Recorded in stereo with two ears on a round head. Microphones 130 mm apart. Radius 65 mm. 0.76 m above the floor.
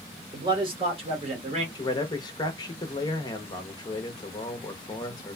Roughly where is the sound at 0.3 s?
Right.